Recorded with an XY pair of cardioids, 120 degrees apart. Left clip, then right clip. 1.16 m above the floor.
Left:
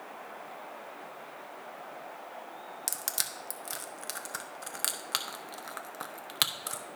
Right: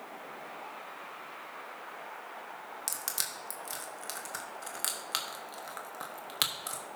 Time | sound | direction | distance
2.9 | crushing | 15° left | 0.9 m